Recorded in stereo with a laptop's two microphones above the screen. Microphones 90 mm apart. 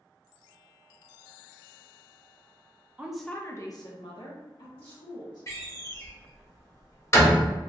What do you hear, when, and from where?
3.0 s a woman speaking: 15° right (ahead or behind), 0.5 m; by 5.4 s 70° left (ahead or behind), 1.7 m
5.5 s a door slam: 35° left (ahead or behind), 1.1 m